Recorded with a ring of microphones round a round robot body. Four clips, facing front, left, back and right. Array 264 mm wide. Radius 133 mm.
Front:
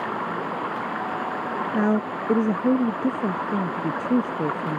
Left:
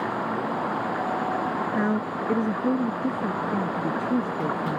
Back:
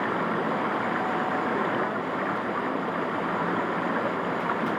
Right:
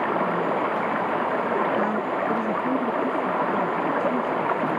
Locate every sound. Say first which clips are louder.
0.0 s running water: right 4 dB, back 1 dB; 100° right
1.7 s a woman speaking: right 2 dB, front 5 dB; 15° left